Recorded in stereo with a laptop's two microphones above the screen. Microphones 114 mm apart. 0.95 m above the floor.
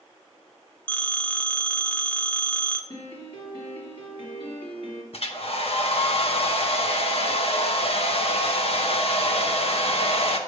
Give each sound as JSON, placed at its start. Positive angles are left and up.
{"t": 0.9, "sound": "a phone ringing", "side_deg": 10, "distance_m": 0.7}
{"t": 2.9, "sound": "a piano", "side_deg": 55, "distance_m": 3.0}
{"t": 5.1, "sound": "a hair dryer", "side_deg": 60, "distance_m": 0.8}